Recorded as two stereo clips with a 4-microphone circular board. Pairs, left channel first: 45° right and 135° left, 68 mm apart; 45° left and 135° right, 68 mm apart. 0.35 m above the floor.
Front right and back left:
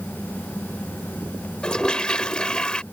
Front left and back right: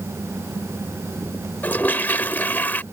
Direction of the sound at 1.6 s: 20° left.